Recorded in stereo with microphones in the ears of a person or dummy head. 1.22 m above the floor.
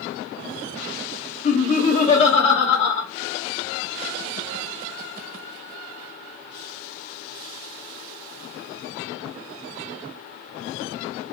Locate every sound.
1.4 s laughter: 35° left (ahead or behind), 1.1 m